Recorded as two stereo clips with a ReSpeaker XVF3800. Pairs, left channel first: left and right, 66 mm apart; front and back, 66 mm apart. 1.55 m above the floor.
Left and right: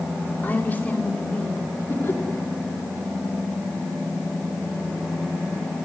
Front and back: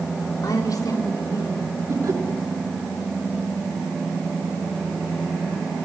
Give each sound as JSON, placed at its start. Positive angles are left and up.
{"t": 0.4, "sound": "a woman speaking", "azimuth_deg": 25, "distance_m": 4.5}
{"t": 1.9, "sound": "laughter", "azimuth_deg": 145, "distance_m": 4.0}